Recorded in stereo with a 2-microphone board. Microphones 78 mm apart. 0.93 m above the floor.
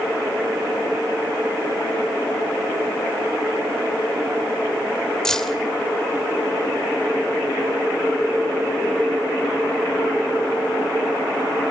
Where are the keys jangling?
10° left (ahead or behind), 2.5 m.